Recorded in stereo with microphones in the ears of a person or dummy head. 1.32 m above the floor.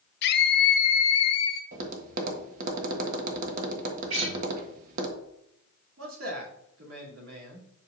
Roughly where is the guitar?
Right.